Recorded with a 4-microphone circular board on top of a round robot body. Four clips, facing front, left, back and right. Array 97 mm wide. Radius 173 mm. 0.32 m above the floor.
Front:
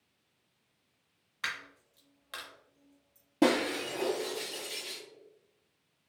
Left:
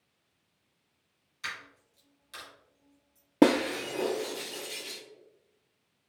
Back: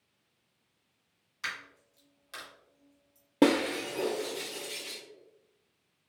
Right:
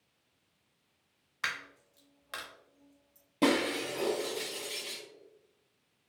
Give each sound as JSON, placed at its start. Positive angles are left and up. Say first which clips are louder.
{"t": 1.4, "sound": "a dropped coin", "louder": "right 3 dB, front 1 dB", "azimuth_deg": -70, "distance_m": 0.6}
{"t": 3.4, "sound": "breaking glass", "louder": "left 5 dB, back 2 dB", "azimuth_deg": 110, "distance_m": 0.6}